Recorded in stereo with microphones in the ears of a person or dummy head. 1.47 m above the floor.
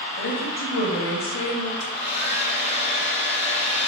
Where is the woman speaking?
55° left (ahead or behind), 1.8 m.